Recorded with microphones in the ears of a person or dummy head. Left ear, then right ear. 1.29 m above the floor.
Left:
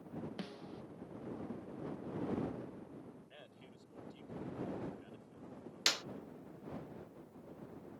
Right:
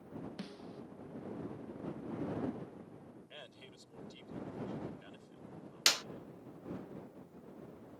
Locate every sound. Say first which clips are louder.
0.4 s a snare drum: even; 10° left (ahead or behind)
3.3 s a man speaking: right 5 dB; 35° right (ahead or behind)
5.9 s a clap: right 4 dB; 10° right (ahead or behind)